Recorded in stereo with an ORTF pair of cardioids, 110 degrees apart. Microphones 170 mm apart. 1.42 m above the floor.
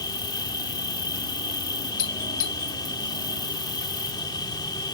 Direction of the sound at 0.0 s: 25° left.